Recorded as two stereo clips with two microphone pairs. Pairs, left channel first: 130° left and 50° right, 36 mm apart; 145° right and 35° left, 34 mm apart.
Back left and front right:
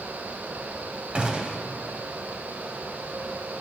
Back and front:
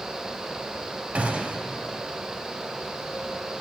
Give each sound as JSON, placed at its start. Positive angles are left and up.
{"t": 1.1, "sound": "a gunshot", "azimuth_deg": 5, "distance_m": 0.8}